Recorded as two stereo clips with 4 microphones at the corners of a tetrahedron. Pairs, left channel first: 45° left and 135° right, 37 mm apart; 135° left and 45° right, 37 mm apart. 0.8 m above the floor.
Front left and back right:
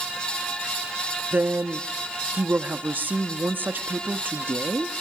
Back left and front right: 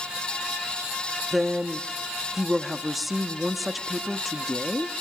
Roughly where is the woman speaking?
Behind right.